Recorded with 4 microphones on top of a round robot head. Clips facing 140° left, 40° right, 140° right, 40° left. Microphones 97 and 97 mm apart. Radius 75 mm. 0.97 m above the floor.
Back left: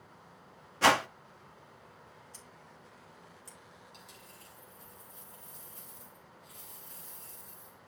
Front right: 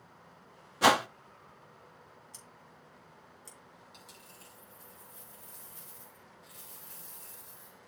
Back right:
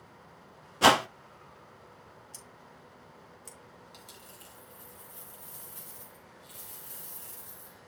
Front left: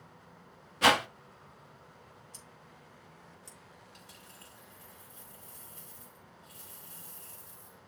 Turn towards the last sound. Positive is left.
turn(degrees=-125)